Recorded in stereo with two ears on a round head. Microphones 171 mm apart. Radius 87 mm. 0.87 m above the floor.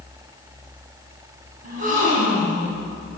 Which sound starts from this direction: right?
A gasp, at 1.6 s.